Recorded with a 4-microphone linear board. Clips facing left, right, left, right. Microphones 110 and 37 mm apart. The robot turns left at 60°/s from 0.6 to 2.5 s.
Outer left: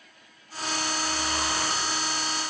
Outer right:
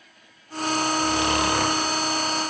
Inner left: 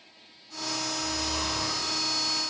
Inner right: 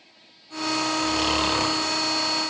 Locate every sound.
1.0 s snoring: 80° right, 0.8 m; by 1.9 s 135° right, 0.8 m